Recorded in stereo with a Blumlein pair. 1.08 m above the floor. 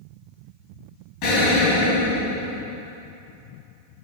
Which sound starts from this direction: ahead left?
An explosion, at 1.2 s.